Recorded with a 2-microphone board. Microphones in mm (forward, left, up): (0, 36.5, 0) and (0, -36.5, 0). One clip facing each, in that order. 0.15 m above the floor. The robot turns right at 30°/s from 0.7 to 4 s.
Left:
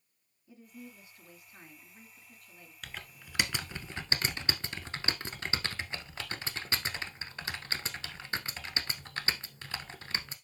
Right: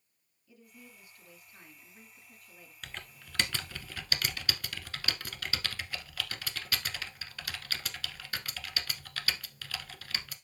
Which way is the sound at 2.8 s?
Centre (ahead or behind).